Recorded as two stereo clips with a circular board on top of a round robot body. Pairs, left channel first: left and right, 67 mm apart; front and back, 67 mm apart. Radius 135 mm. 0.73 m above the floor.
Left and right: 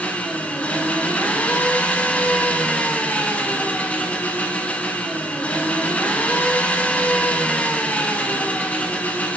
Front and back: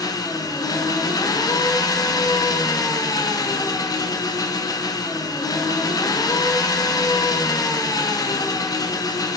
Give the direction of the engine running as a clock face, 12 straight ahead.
11 o'clock.